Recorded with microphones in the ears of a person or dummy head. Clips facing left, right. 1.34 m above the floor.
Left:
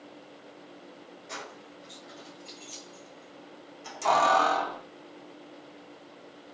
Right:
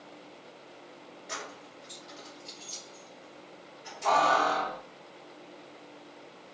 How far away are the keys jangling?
About 1.2 m.